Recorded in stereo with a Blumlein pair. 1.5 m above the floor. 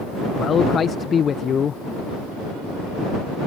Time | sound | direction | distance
0.4 | a man speaking | 20° left | ?